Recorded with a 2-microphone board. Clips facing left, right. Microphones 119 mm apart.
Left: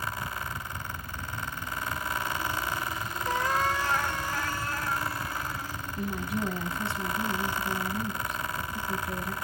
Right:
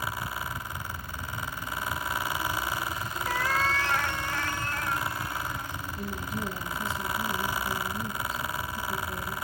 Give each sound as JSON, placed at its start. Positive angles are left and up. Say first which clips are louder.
{"t": 3.3, "sound": "a cat meowing", "louder": "left 1 dB", "side_deg": 20, "distance_m": 0.6}
{"t": 6.0, "sound": "a woman speaking", "louder": "left 4 dB", "side_deg": 70, "distance_m": 4.5}